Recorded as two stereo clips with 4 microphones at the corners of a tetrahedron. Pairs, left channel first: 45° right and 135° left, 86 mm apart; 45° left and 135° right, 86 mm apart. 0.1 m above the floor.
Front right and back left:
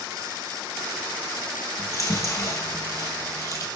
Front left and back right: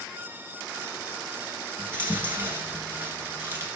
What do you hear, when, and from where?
1.8 s chewing: 85° right, 1.9 m